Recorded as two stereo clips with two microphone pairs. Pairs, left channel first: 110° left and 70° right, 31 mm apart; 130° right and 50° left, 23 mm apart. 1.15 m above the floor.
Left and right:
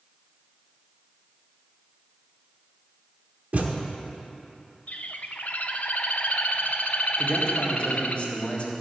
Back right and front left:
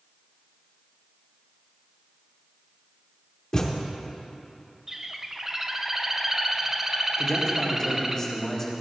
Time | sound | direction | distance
3.5 | a thud | 75° right | 1.0 m
4.9 | a bird | 120° left | 0.5 m
7.2 | a man speaking | 160° left | 1.9 m